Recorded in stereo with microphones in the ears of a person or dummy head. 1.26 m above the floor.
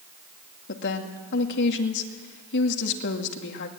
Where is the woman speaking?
65° left (ahead or behind), 2.5 m.